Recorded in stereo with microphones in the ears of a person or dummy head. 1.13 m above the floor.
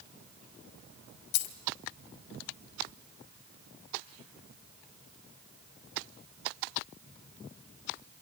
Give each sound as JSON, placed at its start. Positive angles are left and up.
{"t": 1.3, "sound": "a dropped coin", "side_deg": 65, "distance_m": 1.1}